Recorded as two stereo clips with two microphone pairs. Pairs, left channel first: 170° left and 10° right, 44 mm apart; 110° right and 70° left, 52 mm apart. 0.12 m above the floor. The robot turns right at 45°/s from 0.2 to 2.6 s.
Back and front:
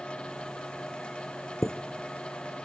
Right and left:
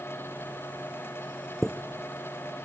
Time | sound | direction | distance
1.6 | a chime | 155° left | 0.6 m